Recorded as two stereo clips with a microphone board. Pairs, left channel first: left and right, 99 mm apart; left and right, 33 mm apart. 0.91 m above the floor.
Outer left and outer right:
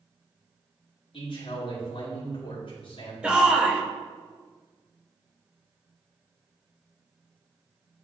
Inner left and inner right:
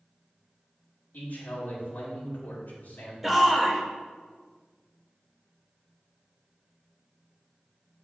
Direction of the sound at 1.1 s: 60° left (ahead or behind).